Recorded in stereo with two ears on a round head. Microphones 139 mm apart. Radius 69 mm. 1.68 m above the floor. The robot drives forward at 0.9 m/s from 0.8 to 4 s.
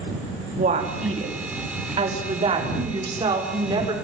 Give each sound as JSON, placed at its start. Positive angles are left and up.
{"t": 0.6, "sound": "a woman speaking", "side_deg": -45, "distance_m": 3.5}